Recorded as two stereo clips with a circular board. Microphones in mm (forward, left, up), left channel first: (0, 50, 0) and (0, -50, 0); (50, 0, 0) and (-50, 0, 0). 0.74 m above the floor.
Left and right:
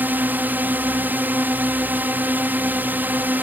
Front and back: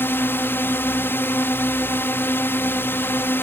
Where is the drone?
40° right.